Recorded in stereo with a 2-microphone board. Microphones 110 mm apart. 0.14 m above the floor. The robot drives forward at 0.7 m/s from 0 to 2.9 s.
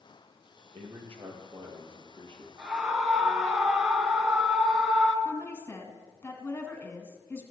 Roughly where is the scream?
Centre.